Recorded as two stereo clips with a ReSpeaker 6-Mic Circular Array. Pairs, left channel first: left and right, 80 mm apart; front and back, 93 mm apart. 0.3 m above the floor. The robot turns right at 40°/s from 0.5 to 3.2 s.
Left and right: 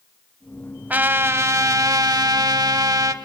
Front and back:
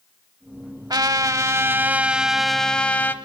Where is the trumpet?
155° right, 0.8 m; by 3.1 s 65° right, 0.8 m.